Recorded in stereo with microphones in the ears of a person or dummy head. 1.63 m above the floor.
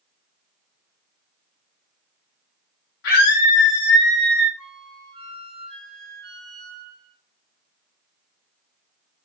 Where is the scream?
65° left (ahead or behind), 0.8 m; by 4.5 s 70° left (ahead or behind), 1.5 m.